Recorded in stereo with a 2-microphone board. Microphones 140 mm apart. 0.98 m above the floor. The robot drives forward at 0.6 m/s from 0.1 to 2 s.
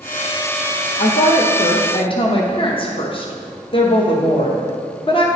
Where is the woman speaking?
60° left (ahead or behind), 0.6 m; by 5.3 s 40° left (ahead or behind), 0.7 m.